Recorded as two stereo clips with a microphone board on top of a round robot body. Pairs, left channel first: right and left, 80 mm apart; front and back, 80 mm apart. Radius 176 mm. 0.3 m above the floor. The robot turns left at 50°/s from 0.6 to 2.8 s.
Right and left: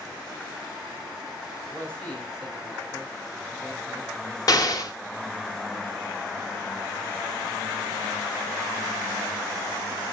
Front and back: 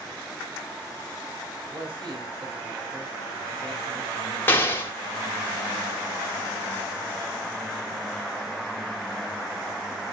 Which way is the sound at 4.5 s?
60° right.